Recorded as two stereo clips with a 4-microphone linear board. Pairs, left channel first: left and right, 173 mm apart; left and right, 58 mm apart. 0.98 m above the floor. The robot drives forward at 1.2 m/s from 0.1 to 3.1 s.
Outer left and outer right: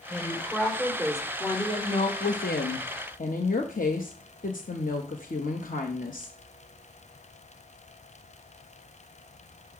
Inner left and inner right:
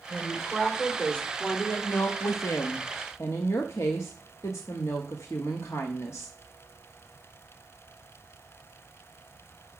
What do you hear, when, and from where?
0.1 s a woman speaking: 10° left (ahead or behind), 3 m; by 6.4 s 50° left (ahead or behind), 0.8 m